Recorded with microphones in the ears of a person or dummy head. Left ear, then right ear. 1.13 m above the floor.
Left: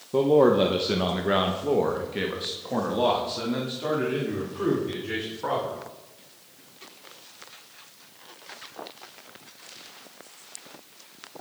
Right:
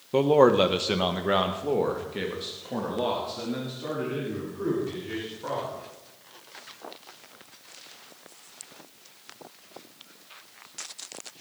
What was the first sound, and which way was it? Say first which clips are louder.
A man speaking: even; 60° right (ahead or behind).